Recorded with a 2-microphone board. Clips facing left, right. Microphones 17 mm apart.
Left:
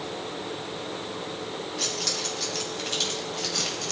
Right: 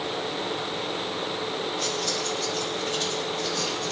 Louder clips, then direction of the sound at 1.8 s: Left 2 dB; 40° left (ahead or behind).